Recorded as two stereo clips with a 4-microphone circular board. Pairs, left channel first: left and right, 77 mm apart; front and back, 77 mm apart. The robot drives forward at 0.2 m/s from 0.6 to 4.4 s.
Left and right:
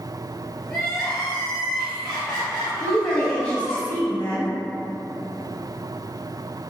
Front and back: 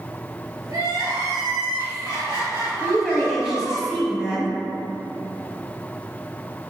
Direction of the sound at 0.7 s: Straight behind.